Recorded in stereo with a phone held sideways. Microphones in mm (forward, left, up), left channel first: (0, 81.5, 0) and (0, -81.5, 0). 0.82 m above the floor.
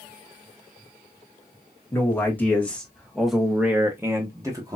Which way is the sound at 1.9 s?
15° left (ahead or behind).